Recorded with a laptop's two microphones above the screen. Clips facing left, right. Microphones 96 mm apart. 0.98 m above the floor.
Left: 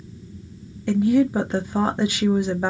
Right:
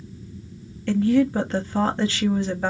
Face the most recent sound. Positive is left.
turn(degrees=15)  # may be behind; listen again after turning